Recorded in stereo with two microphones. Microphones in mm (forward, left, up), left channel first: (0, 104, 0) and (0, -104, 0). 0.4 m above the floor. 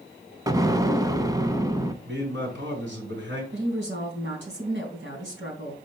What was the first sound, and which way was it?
An explosion, 15° right (ahead or behind).